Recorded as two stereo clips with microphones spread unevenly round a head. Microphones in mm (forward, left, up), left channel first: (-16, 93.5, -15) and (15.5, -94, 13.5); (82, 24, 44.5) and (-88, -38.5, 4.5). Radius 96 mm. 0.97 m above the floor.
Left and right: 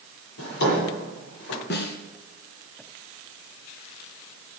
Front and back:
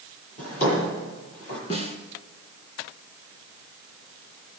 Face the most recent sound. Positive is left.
turn(degrees=65)